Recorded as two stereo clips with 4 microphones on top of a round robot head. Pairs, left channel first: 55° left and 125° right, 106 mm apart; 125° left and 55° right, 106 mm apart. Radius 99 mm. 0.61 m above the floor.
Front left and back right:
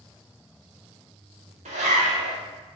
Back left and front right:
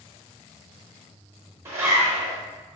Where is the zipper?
125° right, 1.0 m.